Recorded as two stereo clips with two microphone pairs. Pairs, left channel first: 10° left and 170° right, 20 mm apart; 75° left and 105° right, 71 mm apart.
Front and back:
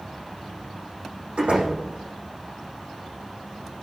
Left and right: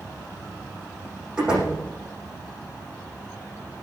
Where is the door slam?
Straight behind, 9.5 m.